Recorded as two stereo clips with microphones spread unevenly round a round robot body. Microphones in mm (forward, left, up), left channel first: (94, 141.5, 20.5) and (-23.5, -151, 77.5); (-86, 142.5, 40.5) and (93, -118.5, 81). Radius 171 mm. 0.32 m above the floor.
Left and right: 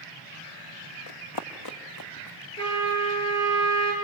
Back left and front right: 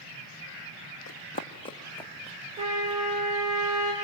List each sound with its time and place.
1.1 s running footsteps: 70° left, 1.3 m; by 3.0 s 20° left, 2.5 m
2.6 s a trumpet: 25° left, 7 m